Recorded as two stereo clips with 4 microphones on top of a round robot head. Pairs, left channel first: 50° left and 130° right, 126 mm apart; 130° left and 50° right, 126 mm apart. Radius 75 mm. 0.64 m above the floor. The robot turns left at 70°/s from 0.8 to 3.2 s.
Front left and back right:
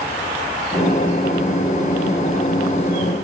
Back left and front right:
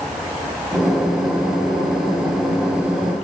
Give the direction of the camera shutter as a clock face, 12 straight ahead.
I don't hear a camera shutter.